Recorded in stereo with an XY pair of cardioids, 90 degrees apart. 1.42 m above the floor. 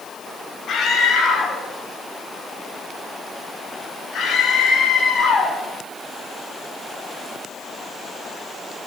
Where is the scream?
65° left, 10 m; by 5.6 s 60° left, 14.5 m.